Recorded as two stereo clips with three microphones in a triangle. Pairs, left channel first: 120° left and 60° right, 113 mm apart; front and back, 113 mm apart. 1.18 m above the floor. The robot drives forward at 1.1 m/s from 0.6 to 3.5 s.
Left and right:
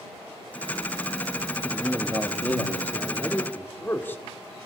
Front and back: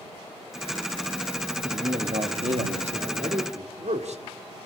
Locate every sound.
1.6 s a man speaking: 155° right, 1.6 m; by 4.2 s 170° right, 3.5 m